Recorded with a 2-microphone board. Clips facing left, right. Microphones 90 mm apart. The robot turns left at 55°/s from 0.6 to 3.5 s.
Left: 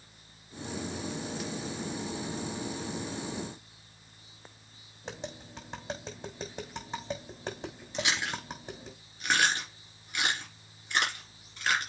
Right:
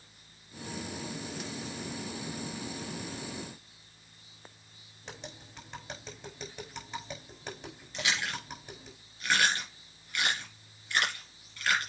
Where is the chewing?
25° left (ahead or behind), 4.5 m.